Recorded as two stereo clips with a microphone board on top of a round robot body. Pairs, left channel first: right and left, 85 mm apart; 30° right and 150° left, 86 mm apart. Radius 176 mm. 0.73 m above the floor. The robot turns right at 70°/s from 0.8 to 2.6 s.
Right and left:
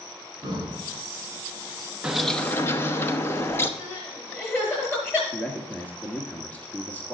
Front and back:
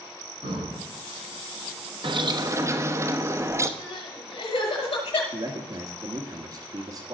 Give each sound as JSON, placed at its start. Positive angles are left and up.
{"t": 0.4, "sound": "breathing", "azimuth_deg": 130, "distance_m": 5.5}
{"t": 2.0, "sound": "a bird", "azimuth_deg": 170, "distance_m": 1.3}
{"t": 3.8, "sound": "crying", "azimuth_deg": -25, "distance_m": 5.0}
{"t": 5.3, "sound": "a man speaking", "azimuth_deg": -165, "distance_m": 1.5}